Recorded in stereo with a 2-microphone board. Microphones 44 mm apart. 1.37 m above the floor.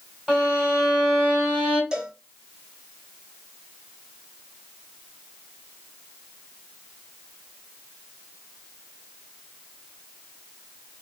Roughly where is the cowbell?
Centre.